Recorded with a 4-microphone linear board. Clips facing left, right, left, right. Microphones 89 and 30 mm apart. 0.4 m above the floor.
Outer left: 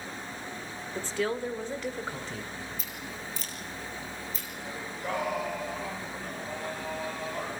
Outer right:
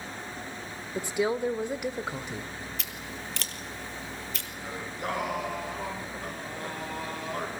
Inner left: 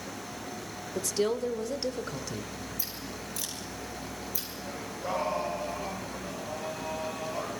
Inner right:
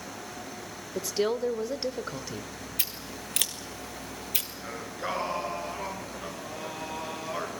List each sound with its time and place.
0.9 s a woman speaking: 15° right (ahead or behind), 1.0 m
2.8 s scissors: 80° right, 1.8 m
4.6 s singing: 75° right (ahead or behind), 5.5 m